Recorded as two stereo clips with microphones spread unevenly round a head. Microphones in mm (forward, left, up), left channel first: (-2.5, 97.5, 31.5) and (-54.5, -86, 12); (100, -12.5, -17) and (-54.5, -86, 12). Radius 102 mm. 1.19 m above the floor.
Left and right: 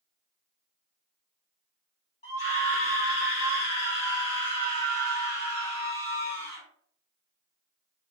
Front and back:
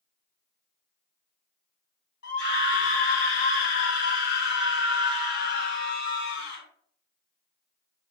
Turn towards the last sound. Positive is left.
turn(degrees=15)